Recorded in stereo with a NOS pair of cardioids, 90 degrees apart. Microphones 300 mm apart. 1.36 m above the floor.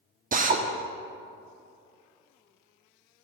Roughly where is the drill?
Ahead right.